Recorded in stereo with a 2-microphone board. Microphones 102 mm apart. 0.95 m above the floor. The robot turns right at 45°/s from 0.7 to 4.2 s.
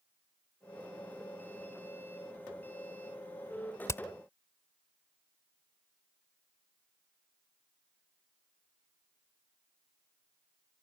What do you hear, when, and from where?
3.9 s hammering: 25° left (ahead or behind); by 4.0 s 35° left (ahead or behind)